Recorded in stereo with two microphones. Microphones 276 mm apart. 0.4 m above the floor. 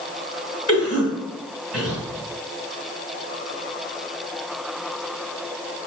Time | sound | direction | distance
0.7 | a cough | 55° left (ahead or behind) | 1.4 m